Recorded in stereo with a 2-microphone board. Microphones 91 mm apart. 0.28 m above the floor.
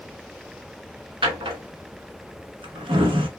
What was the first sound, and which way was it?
A drawer, 75° right (ahead or behind).